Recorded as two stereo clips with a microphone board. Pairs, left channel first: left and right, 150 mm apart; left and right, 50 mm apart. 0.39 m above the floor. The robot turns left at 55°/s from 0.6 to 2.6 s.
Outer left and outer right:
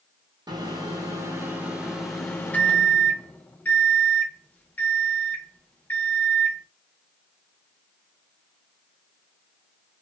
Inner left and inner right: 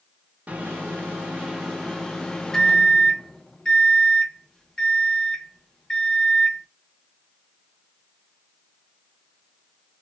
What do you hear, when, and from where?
0.5 s a microwave: 25° right (ahead or behind), 0.6 m; by 6.7 s 10° left (ahead or behind), 0.6 m